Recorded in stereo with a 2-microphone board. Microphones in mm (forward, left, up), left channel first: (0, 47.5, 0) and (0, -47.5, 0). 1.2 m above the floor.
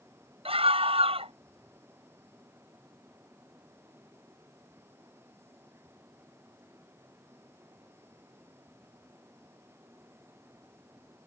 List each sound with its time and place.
0.5 s a scream: 85° right